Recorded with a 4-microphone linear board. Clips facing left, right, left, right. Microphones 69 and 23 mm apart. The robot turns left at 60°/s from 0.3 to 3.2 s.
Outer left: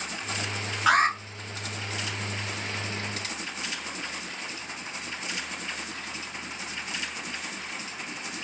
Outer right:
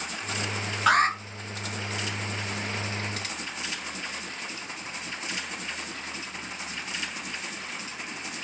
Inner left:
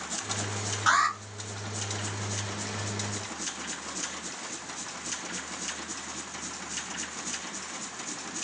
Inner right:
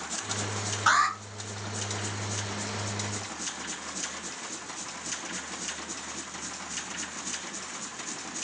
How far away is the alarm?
About 1.7 m.